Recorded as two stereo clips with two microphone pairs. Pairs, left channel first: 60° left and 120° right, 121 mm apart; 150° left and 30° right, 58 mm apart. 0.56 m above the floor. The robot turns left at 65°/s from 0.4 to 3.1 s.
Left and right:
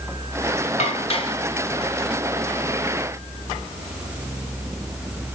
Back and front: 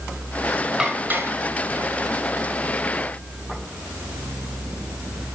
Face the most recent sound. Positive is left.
turn(degrees=-105)